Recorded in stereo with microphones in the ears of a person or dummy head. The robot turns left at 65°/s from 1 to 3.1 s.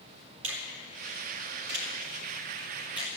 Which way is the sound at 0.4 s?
75° right (ahead or behind).